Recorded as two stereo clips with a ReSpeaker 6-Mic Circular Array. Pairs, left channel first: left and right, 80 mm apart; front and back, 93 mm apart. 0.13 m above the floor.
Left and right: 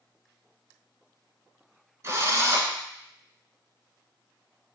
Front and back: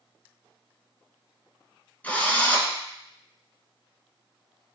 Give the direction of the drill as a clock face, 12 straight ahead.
2 o'clock.